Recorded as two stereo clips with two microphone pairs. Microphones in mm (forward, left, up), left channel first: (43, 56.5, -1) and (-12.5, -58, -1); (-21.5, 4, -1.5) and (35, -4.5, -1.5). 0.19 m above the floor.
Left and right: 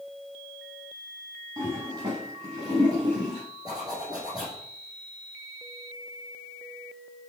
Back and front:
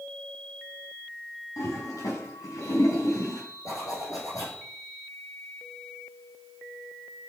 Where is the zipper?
175° right, 5.5 m.